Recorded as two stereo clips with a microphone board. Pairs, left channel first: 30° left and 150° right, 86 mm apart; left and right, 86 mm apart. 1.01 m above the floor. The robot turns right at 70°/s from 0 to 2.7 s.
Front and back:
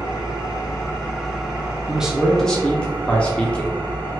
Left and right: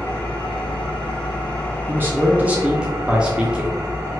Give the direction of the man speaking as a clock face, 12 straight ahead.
3 o'clock.